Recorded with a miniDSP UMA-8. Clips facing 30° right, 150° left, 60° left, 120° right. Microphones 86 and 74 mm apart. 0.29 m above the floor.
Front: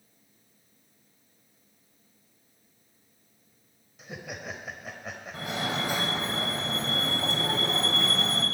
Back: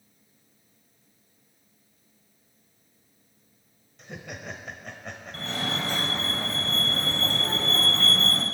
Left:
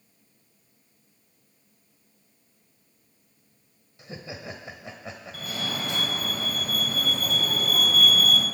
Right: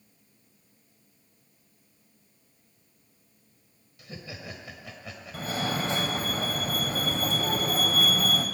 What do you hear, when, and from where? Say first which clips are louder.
4.0 s laughter: even, left 3 dB; 50° left, 1.2 m
5.3 s a fire alarm: even, right 4 dB; 100° right, 2.5 m